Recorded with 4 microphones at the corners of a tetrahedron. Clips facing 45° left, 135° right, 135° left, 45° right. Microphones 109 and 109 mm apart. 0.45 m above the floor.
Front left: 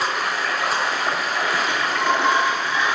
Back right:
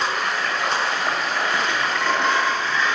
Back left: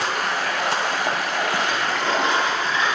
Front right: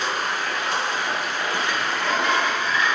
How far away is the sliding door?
About 0.7 m.